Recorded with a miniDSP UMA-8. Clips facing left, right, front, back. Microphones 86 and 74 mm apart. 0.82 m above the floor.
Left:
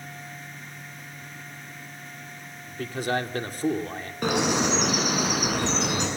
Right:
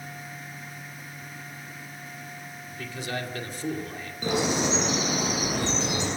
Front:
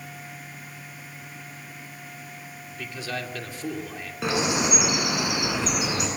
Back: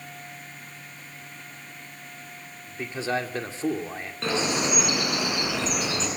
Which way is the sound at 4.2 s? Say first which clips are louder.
Left 2 dB, front 1 dB; 75° left.